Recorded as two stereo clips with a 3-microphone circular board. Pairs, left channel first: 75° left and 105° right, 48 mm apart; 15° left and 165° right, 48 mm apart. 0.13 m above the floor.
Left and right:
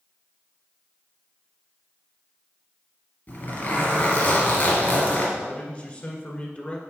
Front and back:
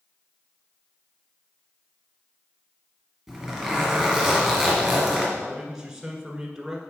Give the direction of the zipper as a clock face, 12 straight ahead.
8 o'clock.